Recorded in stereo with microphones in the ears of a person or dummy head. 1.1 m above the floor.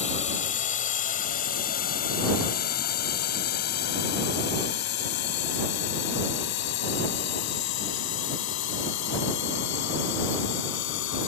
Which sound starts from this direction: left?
A drone, at 0.0 s.